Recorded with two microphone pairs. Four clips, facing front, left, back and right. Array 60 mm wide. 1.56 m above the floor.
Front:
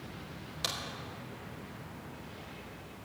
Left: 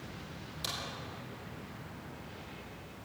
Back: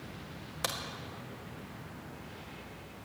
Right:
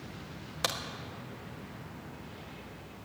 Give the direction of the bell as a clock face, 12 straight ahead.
I don't hear a bell.